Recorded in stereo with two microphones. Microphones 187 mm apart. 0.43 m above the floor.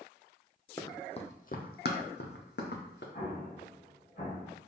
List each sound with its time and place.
0.8 s running footsteps: 15° left (ahead or behind), 0.8 m; by 3.0 s 70° left (ahead or behind), 1.5 m
3.1 s an explosion: 55° left (ahead or behind), 2 m